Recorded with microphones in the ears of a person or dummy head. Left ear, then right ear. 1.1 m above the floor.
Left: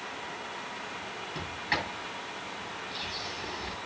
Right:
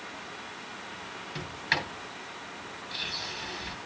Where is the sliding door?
45° right (ahead or behind), 8 m.